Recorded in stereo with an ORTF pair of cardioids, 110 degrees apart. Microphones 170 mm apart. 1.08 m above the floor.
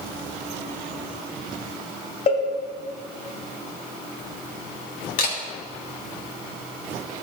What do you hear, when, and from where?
2.3 s a cowbell: 40° left, 2.5 m
5.2 s a camera shutter: 55° left, 3 m